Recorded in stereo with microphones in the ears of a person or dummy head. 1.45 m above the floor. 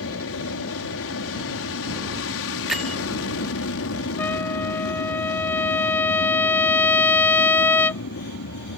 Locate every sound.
0.0 s an aircraft: 70° left (ahead or behind)
2.7 s a bell: 5° right (ahead or behind)
4.2 s a trumpet: 10° left (ahead or behind)